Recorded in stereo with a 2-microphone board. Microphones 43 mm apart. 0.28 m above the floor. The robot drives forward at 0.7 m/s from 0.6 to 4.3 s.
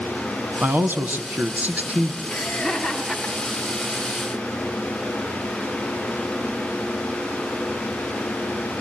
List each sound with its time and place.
0.6 s a man speaking: 50° right (ahead or behind), 1.8 m; by 2.2 s 35° right (ahead or behind), 2.5 m
2.3 s laughter: centre (ahead or behind), 4 m